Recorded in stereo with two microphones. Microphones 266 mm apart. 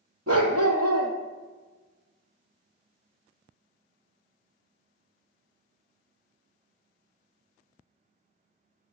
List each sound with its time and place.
0.3 s a dog barking: 65° right (ahead or behind), 1.6 m